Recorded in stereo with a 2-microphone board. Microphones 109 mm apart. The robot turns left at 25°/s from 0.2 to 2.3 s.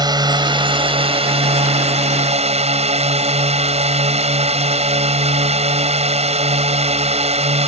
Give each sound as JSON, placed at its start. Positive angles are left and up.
{"t": 0.0, "sound": "a drone", "azimuth_deg": -40}